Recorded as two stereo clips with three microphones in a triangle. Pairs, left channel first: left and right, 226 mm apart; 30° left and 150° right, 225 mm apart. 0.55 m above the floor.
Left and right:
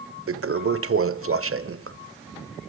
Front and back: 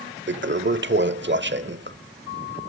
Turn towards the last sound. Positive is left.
turn(degrees=-110)